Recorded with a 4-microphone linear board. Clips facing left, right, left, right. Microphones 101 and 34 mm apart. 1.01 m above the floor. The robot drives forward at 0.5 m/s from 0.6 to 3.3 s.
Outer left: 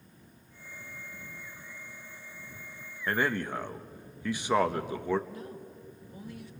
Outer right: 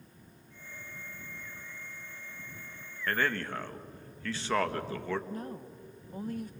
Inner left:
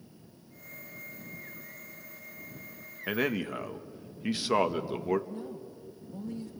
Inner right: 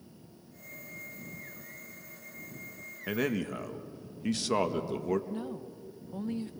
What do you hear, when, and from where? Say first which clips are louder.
3.1 s a man speaking: outer left 2 dB, inner left 1 dB; 15° left (ahead or behind), 0.9 m
5.3 s a woman speaking: outer right 3 dB, inner right 2 dB; 40° right (ahead or behind), 0.9 m